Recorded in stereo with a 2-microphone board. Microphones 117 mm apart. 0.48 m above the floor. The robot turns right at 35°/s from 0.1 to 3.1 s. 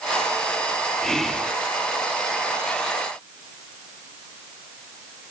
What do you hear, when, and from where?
1.0 s whispering: 5° left (ahead or behind), 0.7 m; by 1.5 s 5° right (ahead or behind), 0.7 m